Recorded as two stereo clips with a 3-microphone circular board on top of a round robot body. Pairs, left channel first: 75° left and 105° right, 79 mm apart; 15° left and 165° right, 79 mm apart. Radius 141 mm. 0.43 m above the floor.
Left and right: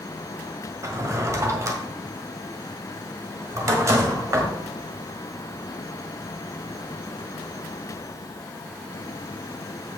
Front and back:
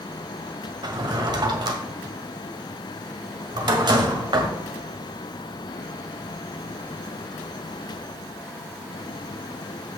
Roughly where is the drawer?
Behind right.